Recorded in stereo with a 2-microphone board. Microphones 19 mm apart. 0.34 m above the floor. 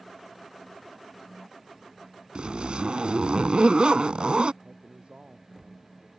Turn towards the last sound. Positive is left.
turn(degrees=-70)  # may be behind; listen again after turning